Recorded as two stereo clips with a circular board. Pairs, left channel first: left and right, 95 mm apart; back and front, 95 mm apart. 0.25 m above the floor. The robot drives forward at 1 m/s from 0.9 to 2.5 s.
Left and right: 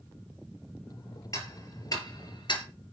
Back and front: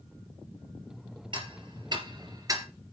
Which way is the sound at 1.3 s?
35° left.